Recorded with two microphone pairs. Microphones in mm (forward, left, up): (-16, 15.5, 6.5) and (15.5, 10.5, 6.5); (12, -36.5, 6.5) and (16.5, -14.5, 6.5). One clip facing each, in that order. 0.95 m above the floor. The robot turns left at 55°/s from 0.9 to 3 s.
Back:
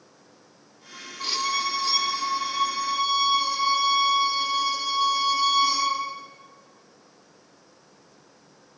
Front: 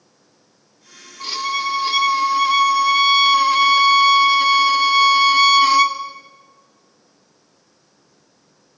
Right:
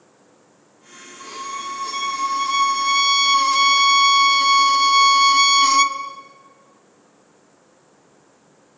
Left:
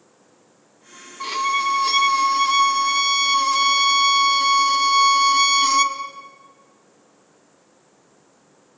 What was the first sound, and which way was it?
A violin, 75° left.